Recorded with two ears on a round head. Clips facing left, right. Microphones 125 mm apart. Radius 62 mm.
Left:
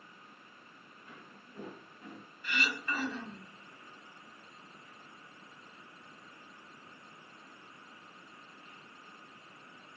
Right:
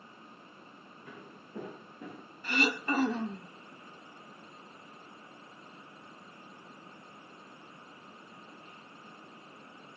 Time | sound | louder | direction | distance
1.1 | footsteps | right 5 dB | 55° right (ahead or behind) | 8 m
2.4 | throat clearing | right 6 dB | 30° right (ahead or behind) | 1.2 m